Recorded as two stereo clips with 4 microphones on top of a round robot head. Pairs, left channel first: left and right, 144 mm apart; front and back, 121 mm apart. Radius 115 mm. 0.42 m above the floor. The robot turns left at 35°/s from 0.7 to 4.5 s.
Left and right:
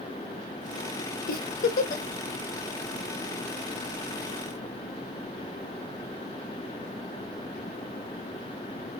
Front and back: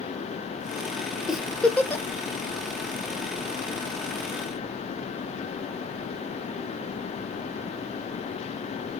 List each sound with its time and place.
1.3 s a giggle: 95° left, 1.0 m; by 2.0 s 65° left, 1.0 m